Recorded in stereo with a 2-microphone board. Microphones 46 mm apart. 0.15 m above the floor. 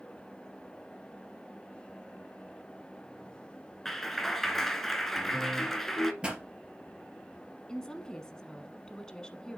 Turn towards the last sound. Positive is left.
turn(degrees=15)  # may be behind; listen again after turning